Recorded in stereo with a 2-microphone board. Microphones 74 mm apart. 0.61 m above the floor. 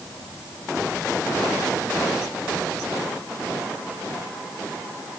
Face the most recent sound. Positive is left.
No sound to turn to.